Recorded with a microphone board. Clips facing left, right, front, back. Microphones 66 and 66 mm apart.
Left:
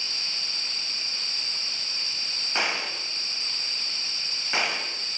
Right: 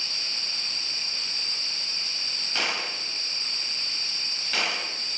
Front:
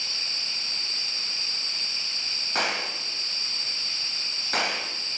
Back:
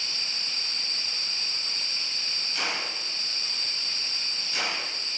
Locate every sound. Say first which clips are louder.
2.5 s a gunshot: left 2 dB, front 4 dB; 25° left, 4.5 m